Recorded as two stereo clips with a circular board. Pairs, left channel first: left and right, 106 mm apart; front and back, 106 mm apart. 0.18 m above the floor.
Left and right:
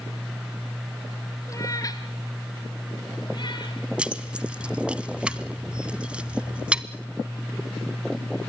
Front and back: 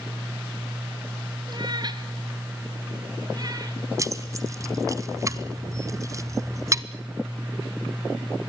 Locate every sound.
1.5 s a cat meowing: 145° left, 1.5 m; by 3.8 s 130° left, 3 m
4.0 s keys jangling: 160° right, 1.0 m